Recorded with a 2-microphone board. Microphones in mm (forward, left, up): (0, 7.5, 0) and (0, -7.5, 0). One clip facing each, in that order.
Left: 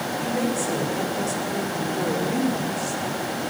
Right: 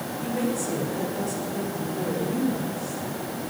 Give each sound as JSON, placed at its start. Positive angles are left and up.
{"t": 0.2, "sound": "a woman speaking", "side_deg": 10, "distance_m": 2.5}